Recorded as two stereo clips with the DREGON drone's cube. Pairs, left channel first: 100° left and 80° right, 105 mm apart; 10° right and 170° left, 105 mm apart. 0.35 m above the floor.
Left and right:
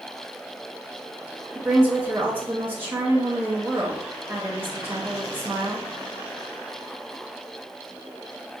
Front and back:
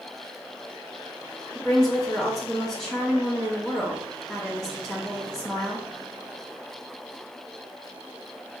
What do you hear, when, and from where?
1.6 s a woman speaking: 75° right, 0.8 m